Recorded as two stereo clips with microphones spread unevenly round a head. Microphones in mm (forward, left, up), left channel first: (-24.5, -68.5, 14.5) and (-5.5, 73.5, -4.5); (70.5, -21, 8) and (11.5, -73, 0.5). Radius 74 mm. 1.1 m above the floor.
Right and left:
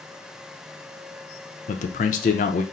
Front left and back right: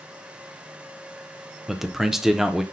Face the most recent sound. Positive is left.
turn(degrees=-55)